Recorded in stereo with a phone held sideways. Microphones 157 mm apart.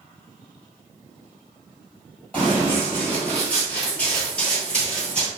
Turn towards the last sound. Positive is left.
turn(degrees=5)  # may be behind; listen again after turning